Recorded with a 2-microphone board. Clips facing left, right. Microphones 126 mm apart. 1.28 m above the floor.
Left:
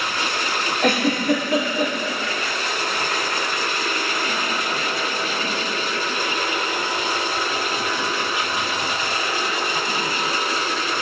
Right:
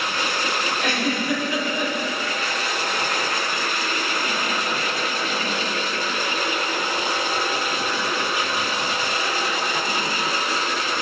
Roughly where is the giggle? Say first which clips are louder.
Left 7 dB; left.